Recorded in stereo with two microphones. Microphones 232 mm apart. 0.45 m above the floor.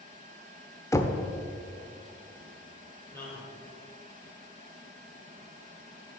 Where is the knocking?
15° left (ahead or behind), 0.7 m.